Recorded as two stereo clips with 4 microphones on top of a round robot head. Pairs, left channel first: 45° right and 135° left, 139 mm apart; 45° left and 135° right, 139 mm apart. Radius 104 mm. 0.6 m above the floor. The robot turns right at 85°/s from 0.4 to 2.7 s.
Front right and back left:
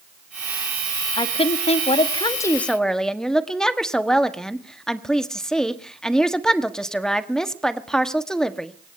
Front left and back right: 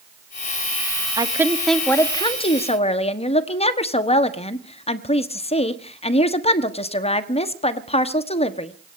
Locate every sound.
1.2 s a woman speaking: 90° right, 1.4 m; by 8.7 s 40° left, 1.4 m